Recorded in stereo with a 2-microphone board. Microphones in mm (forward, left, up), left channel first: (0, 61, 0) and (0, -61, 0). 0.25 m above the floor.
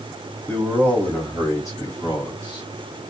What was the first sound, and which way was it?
A man speaking, 10° left (ahead or behind).